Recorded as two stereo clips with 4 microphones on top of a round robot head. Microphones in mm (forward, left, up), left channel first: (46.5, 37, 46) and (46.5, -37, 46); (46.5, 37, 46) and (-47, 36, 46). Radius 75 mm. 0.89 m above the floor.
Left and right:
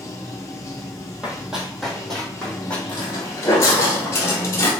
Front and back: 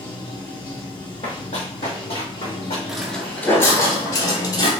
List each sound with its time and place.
0.0 s running water: 40° left, 1.0 m
1.2 s running footsteps: 20° right, 1.3 m; by 2.8 s 15° left, 2 m
2.9 s footsteps: 100° left, 0.9 m; by 4.7 s 35° left, 1.8 m